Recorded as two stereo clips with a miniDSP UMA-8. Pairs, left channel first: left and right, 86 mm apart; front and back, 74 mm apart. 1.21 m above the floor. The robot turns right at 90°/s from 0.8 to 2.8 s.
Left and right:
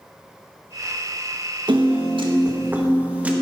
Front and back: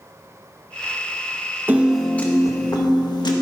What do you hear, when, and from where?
1.7 s a piano: 120° right, 1.5 m; by 3.3 s 15° right, 1.5 m